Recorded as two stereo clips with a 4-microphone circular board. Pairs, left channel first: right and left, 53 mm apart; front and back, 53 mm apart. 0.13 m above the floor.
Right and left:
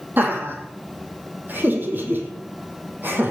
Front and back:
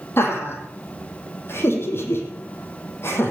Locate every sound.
0.2 s laughter: 40° left, 5 m